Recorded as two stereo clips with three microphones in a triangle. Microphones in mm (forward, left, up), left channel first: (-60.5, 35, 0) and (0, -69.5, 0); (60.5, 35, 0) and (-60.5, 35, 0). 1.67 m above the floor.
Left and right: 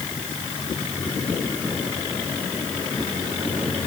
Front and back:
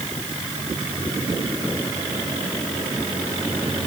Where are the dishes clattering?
I don't hear dishes clattering.